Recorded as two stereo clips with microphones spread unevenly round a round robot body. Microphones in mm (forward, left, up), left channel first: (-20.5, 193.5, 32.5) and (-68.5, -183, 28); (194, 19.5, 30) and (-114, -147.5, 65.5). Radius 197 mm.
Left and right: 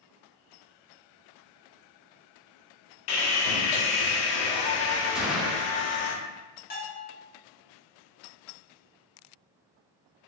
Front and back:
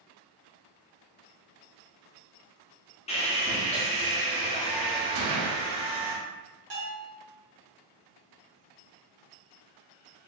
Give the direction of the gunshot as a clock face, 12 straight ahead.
6 o'clock.